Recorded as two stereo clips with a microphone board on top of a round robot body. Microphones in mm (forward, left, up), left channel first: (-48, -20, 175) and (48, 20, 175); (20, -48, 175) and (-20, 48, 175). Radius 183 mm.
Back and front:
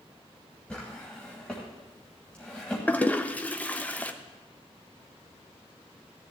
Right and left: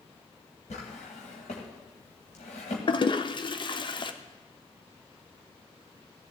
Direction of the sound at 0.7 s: 75° right.